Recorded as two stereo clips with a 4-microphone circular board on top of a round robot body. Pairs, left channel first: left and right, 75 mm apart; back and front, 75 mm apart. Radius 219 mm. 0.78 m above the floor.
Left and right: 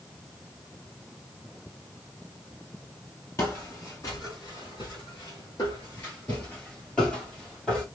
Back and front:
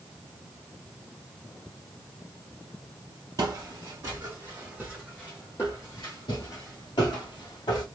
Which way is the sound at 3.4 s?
35° left.